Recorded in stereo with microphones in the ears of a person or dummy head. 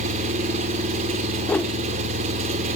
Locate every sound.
0.0 s an engine running: 35° right (ahead or behind), 3 m
1.5 s a whoosh: 10° left (ahead or behind), 0.7 m